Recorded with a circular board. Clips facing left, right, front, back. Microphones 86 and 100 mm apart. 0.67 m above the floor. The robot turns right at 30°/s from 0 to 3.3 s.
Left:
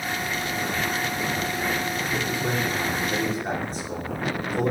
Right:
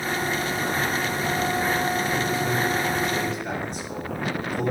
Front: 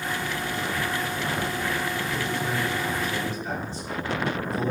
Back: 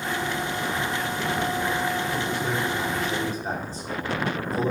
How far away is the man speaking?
About 2 m.